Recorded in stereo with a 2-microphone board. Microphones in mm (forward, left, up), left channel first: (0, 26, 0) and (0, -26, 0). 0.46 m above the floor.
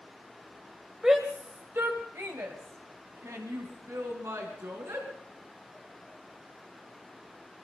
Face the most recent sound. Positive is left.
turn(degrees=-75)  # may be behind; listen again after turning